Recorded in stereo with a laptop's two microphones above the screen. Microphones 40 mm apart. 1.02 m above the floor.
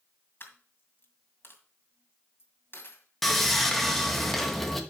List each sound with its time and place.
0.4 s a dropped coin: 60° left (ahead or behind), 2 m
3.2 s sawing: 5° left (ahead or behind), 1.2 m